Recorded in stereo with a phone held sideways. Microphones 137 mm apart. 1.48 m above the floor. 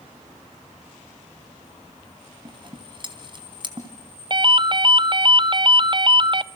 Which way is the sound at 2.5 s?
35° right (ahead or behind).